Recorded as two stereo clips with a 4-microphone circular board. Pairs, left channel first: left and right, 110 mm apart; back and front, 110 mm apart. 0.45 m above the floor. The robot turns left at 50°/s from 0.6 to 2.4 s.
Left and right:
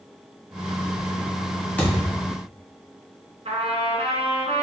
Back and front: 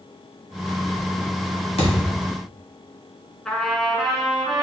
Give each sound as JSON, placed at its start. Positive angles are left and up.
{"t": 1.8, "sound": "a thud", "azimuth_deg": 165, "distance_m": 1.4}
{"t": 3.5, "sound": "a trumpet", "azimuth_deg": -95, "distance_m": 0.8}